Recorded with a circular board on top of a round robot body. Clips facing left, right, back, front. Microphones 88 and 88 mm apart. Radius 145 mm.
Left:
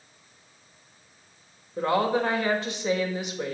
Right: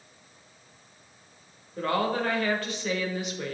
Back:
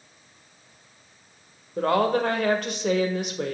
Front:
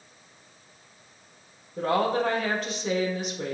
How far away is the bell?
I don't hear a bell.